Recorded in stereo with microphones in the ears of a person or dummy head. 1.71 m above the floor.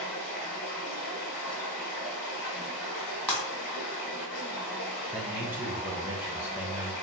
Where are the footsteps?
I don't hear footsteps.